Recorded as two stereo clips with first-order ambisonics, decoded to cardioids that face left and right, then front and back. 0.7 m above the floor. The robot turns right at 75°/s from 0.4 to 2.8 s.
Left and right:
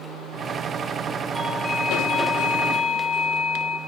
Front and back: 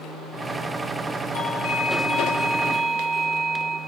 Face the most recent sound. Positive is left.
turn(degrees=110)